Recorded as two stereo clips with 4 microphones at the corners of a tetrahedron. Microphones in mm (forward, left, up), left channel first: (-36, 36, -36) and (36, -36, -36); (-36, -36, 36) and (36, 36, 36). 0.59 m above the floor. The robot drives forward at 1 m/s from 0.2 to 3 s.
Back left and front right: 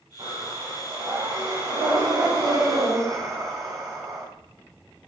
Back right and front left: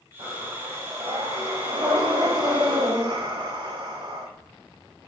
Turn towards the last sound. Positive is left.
turn(degrees=5)